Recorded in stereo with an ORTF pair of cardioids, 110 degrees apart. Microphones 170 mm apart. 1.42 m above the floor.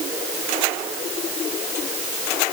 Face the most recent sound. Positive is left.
No sound to turn to.